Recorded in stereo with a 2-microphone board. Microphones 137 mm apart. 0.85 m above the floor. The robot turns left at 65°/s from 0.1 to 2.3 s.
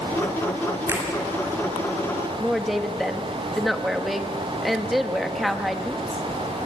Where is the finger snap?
20° right (ahead or behind), 6.5 m; by 1.1 s 30° right (ahead or behind), 6.5 m.